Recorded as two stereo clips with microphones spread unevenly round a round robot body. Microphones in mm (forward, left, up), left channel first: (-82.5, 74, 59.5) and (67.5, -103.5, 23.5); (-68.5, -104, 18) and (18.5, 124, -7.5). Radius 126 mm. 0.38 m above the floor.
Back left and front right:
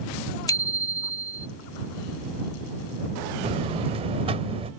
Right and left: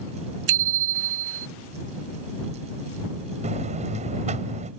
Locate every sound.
0.5 s a bicycle bell: 55° left
3.4 s a buzzer: 10° left